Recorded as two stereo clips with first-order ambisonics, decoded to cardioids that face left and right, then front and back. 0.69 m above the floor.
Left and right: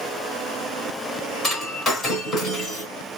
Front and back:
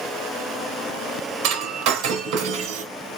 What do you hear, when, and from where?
1.4 s breaking glass: 160° left, 2.5 m